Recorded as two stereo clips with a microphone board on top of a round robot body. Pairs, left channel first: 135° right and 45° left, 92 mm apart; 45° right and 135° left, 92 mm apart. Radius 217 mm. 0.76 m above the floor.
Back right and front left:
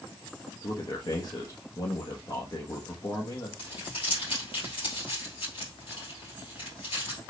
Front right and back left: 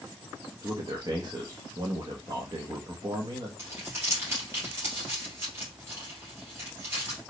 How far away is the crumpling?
About 3 m.